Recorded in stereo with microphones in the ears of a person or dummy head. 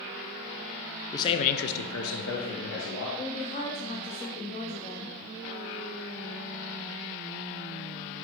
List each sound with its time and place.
1.1 s a man speaking: 20° left (ahead or behind), 0.7 m; by 3.1 s 50° left (ahead or behind), 1.5 m
3.2 s a woman speaking: 35° left (ahead or behind), 0.6 m